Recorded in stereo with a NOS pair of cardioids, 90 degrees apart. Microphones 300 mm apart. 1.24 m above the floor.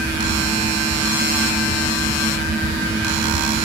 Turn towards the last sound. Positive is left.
turn(degrees=-10)